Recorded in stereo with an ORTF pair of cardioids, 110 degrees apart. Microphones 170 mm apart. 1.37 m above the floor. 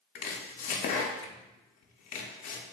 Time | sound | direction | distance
0.1 | chopping | 60° left | 0.5 m